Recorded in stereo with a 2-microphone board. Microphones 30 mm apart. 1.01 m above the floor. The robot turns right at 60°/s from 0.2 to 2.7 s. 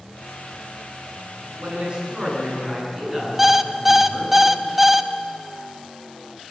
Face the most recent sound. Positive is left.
turn(degrees=-10)  # may be behind; listen again after turning